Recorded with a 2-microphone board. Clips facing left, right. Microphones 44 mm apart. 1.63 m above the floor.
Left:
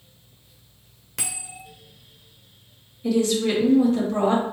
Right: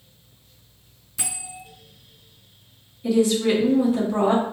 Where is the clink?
I don't hear a clink.